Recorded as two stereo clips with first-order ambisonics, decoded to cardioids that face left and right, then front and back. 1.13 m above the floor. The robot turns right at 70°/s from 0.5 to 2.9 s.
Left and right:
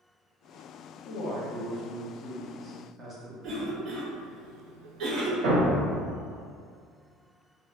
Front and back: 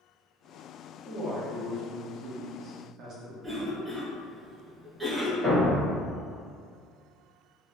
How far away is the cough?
About 0.7 m.